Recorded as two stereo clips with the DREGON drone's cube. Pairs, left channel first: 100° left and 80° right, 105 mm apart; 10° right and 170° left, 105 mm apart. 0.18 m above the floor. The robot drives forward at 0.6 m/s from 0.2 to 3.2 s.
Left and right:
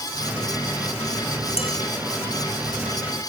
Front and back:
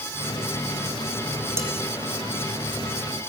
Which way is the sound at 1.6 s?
105° left.